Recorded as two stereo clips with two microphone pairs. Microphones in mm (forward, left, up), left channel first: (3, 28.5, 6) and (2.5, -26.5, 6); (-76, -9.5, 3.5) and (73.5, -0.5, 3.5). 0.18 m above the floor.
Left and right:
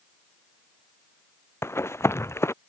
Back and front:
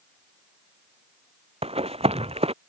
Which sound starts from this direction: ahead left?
Running footsteps, at 1.6 s.